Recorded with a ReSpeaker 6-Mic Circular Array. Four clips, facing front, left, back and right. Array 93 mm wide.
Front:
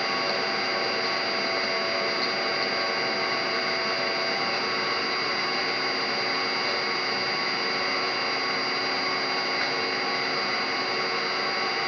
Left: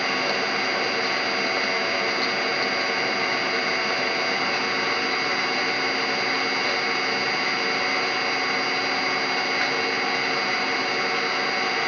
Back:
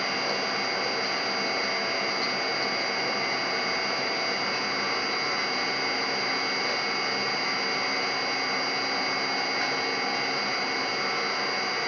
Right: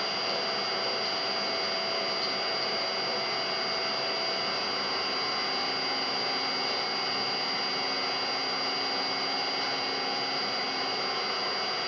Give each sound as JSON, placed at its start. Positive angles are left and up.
{"t": 0.0, "sound": "an engine running", "azimuth_deg": 80, "distance_m": 2.5}